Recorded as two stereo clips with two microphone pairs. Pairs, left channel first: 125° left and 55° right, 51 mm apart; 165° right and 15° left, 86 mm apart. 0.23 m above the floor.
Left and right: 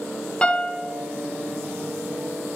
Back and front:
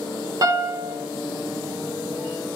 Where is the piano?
55° left, 0.6 m.